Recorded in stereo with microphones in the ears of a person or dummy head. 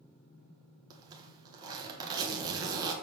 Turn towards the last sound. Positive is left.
turn(degrees=-20)  # may be behind; listen again after turning